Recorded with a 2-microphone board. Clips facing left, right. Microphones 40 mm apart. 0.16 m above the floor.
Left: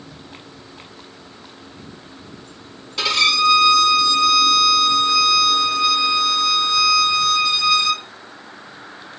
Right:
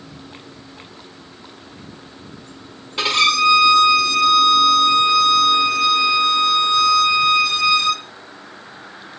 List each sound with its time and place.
3.0 s a violin: 20° right (ahead or behind), 1.4 m